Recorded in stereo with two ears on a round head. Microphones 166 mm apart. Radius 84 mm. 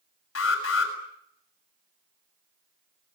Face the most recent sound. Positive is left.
turn(degrees=80)